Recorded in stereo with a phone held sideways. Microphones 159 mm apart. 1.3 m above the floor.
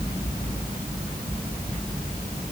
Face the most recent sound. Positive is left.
No sound to turn to.